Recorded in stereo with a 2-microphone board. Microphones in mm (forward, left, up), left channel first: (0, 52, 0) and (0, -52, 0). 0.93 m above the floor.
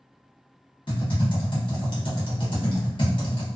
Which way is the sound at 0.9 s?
55° left (ahead or behind).